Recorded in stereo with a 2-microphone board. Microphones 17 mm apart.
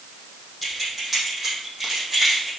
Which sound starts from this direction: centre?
Keys jangling, at 0.6 s.